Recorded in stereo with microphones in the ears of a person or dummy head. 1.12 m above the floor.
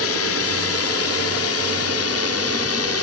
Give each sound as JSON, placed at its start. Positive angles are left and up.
{"t": 0.0, "sound": "a drone", "side_deg": 70}